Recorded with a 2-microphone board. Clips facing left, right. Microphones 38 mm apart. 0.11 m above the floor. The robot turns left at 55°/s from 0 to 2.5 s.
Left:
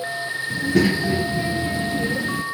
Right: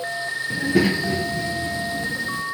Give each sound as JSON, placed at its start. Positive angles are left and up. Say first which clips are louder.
{"t": 0.5, "sound": "a child speaking", "louder": "left 1 dB", "azimuth_deg": -155, "distance_m": 1.3}